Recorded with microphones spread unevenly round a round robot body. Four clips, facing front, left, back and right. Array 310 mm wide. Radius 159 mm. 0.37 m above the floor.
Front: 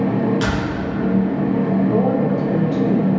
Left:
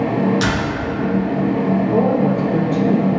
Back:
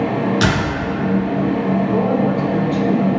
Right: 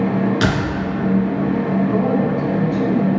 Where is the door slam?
125° right, 3 m.